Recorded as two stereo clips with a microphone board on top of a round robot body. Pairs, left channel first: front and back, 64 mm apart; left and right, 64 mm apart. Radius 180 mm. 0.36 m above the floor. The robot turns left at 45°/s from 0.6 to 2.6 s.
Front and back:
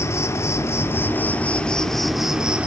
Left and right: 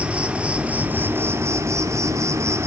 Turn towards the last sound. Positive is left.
turn(degrees=-115)